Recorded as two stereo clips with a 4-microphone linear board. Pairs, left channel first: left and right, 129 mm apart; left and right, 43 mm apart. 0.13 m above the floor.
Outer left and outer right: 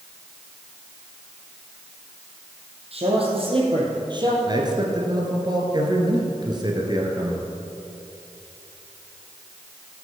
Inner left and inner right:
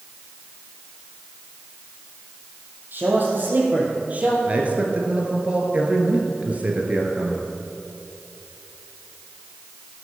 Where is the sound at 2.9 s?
50° right (ahead or behind), 4 m; by 4.4 s 35° right (ahead or behind), 3 m.